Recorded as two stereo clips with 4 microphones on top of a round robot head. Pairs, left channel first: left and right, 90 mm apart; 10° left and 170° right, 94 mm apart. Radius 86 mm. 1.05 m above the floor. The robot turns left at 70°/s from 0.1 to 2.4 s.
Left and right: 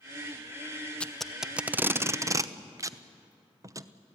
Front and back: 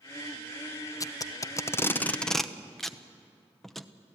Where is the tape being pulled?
20° left, 0.9 m; by 3.9 s 80° right, 0.9 m.